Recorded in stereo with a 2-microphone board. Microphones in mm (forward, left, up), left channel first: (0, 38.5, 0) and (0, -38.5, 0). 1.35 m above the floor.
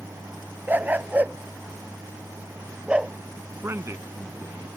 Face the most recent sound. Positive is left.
turn(degrees=-35)  # may be behind; listen again after turning